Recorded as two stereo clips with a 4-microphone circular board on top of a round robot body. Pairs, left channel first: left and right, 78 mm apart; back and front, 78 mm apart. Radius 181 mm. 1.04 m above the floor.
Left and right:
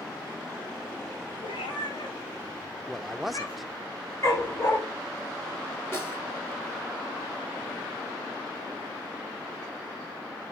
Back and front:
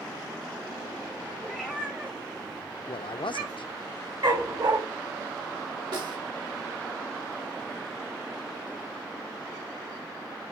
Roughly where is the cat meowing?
Left.